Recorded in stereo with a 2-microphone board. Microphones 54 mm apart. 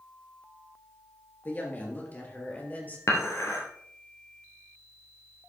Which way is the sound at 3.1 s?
65° left (ahead or behind).